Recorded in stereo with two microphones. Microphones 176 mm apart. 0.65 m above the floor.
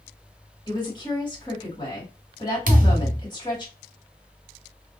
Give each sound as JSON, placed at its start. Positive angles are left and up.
{"t": 0.7, "sound": "a woman speaking", "side_deg": 25, "distance_m": 1.6}
{"t": 2.7, "sound": "a thud", "side_deg": -50, "distance_m": 0.5}